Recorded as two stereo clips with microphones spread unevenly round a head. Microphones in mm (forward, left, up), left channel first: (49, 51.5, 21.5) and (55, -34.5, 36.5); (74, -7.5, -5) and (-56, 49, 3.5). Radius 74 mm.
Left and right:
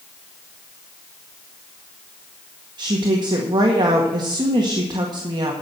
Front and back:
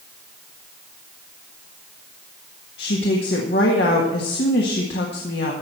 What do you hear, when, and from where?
2.8 s a woman speaking: 50° right, 1.6 m